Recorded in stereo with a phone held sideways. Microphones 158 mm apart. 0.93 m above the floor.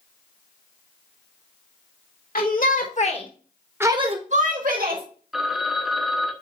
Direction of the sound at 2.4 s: 65° left (ahead or behind).